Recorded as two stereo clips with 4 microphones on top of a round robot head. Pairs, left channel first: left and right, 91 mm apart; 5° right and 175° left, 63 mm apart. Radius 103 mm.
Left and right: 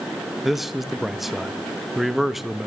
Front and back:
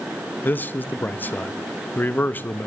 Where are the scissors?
No scissors in this recording.